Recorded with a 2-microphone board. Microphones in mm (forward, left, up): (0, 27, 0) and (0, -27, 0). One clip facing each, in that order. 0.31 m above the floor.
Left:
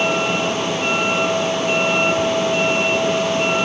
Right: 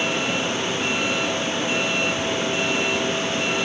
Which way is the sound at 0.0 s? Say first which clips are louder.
Left 5 dB; 35° left (ahead or behind).